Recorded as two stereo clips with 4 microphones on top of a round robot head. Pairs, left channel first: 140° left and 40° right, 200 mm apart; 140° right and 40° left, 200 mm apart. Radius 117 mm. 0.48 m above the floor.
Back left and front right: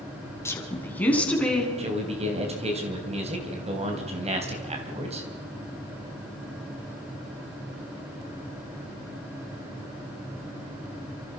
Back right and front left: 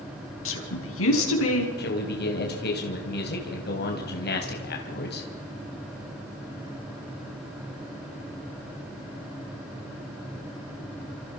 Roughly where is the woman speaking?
Behind right.